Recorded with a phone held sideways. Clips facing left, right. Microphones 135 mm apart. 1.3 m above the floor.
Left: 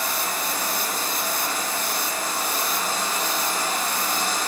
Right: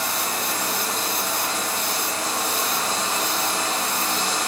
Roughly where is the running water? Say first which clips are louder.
Right 1 dB; right.